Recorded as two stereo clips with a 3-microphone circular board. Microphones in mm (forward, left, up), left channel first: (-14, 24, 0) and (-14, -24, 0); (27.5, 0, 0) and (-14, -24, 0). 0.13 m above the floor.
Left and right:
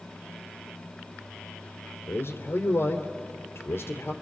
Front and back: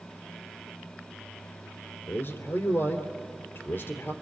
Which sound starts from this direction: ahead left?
A man speaking, at 2.1 s.